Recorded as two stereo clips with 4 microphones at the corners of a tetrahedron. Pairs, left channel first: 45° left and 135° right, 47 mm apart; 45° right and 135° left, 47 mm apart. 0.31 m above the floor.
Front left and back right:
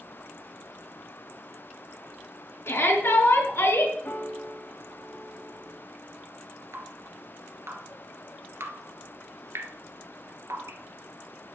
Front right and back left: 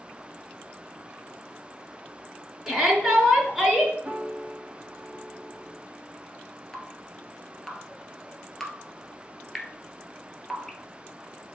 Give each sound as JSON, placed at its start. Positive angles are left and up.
{"t": 2.7, "sound": "a shout", "azimuth_deg": 50, "distance_m": 4.0}
{"t": 4.0, "sound": "a piano", "azimuth_deg": 55, "distance_m": 2.0}
{"t": 6.7, "sound": "dripping", "azimuth_deg": -130, "distance_m": 1.4}